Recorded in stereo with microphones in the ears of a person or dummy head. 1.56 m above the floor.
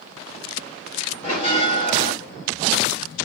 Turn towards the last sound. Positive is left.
turn(degrees=40)  # may be behind; listen again after turning